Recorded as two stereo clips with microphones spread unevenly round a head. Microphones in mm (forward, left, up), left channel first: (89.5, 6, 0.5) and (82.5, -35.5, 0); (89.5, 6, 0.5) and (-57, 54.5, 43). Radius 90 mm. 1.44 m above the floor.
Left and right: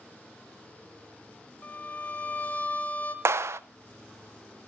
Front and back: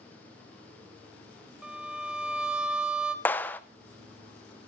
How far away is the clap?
About 0.6 m.